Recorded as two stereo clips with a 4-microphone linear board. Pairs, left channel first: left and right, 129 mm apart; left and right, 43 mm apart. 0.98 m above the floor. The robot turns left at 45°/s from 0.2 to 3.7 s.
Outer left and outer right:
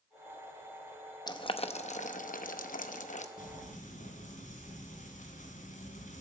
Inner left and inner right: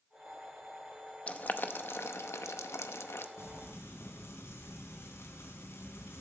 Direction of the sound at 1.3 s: 30° left (ahead or behind).